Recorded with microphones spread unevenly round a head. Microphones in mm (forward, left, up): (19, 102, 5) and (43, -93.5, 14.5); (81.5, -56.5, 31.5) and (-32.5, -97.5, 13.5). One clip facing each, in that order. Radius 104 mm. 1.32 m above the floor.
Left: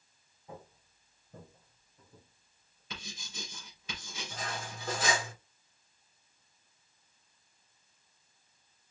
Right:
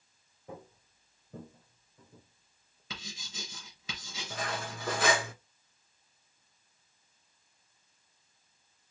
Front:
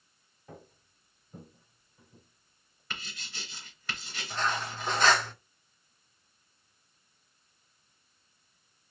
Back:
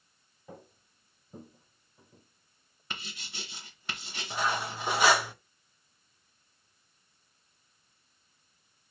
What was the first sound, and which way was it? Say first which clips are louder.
Footsteps: right 2 dB, back 1 dB; 80° right.